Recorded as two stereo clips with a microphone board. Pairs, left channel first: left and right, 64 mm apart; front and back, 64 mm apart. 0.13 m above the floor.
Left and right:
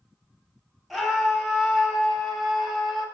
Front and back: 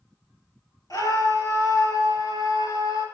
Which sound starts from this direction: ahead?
A scream, at 0.9 s.